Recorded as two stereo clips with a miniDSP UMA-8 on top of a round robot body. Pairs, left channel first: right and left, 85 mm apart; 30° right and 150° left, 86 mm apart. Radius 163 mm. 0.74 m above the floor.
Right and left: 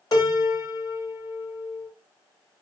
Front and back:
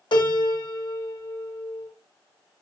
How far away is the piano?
About 2 m.